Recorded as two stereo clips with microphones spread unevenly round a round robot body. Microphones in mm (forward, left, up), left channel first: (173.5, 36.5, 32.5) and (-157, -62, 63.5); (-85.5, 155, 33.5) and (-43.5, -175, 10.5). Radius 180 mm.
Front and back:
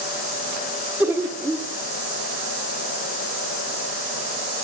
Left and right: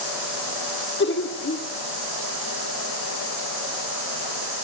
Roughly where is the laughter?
Left.